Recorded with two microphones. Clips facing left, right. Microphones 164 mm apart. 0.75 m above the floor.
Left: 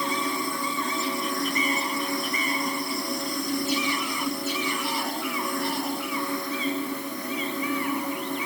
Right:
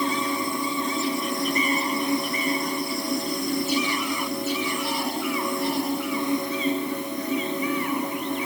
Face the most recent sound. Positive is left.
No sound to turn to.